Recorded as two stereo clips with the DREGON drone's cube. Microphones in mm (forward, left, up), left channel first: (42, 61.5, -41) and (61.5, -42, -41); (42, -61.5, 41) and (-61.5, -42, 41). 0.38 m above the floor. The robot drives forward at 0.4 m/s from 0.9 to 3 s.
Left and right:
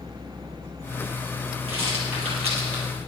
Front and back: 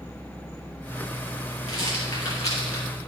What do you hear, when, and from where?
1.7 s a rattle: 60° right, 4 m; by 2.8 s 70° right, 4 m